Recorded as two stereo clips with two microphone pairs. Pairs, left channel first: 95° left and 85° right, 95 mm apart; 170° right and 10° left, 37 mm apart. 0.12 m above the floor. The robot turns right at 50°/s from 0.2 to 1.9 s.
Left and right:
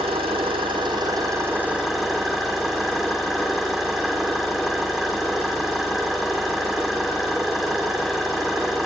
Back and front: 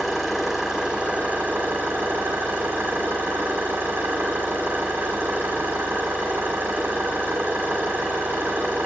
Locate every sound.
0.0 s an engine running: 85° right, 6 m; by 8.9 s straight ahead, 6 m